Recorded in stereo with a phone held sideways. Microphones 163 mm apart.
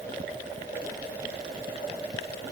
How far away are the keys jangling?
No keys jangling in this recording.